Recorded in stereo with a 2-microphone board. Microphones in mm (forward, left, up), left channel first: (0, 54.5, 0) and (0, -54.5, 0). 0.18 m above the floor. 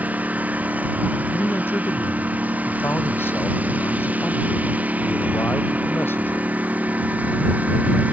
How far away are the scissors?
No scissors in this recording.